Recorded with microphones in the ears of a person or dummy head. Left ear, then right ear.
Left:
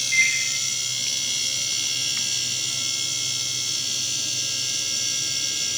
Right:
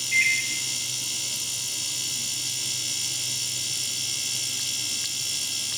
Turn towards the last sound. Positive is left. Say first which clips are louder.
# left 1 dB
turn(degrees=-10)  # may be behind; listen again after turning